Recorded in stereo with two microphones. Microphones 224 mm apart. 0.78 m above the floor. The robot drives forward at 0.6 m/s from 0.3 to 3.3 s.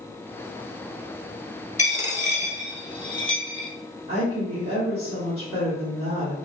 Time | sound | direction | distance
1.8 | a dropped coin | 35° left (ahead or behind) | 0.9 m
4.1 | a woman speaking | 25° right (ahead or behind) | 1.6 m